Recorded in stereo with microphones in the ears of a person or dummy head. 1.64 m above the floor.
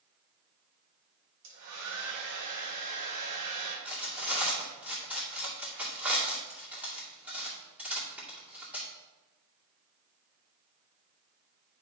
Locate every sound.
1.4 s a hair dryer: 65° right (ahead or behind), 1.7 m
3.9 s cutlery clinking: 15° right (ahead or behind), 2.5 m